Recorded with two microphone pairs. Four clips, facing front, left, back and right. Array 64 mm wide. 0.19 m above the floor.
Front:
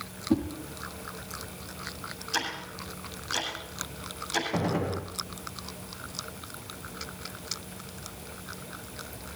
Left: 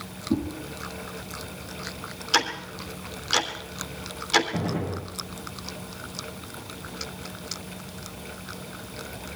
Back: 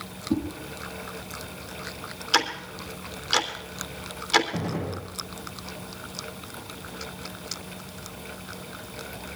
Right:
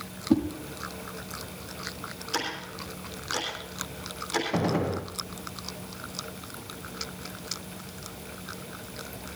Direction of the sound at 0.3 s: 70° right.